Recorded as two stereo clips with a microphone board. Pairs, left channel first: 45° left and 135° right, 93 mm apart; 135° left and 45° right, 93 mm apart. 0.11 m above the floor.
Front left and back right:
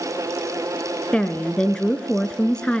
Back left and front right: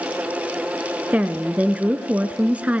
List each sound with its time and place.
1.1 s a woman speaking: 10° right, 1.1 m